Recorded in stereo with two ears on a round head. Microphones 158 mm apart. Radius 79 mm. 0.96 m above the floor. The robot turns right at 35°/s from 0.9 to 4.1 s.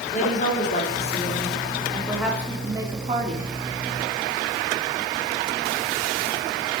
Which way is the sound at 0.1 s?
135° left.